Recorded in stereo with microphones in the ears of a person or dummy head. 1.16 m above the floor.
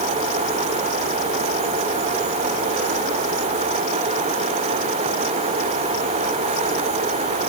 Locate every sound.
Only background noise.